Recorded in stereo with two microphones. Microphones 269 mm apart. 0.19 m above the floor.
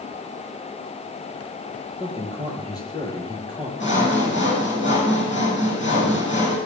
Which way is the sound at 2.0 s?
15° left (ahead or behind).